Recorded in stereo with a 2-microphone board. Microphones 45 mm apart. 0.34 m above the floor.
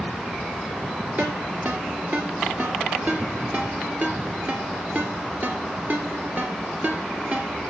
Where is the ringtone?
40° right (ahead or behind), 2.5 m.